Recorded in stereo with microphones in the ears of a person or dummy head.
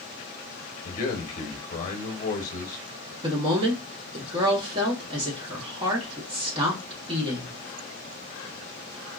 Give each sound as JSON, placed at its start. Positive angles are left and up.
{"t": 0.8, "sound": "a man speaking", "side_deg": 50, "distance_m": 1.0}
{"t": 3.2, "sound": "a woman speaking", "side_deg": -30, "distance_m": 1.2}